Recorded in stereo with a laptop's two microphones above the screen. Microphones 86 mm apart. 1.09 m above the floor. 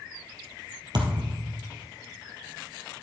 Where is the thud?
60° right (ahead or behind), 2 m.